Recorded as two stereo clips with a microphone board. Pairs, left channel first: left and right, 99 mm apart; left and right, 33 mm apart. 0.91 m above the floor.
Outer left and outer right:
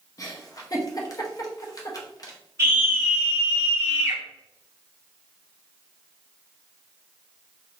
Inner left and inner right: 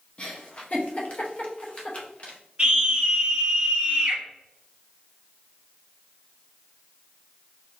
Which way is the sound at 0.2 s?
35° left (ahead or behind).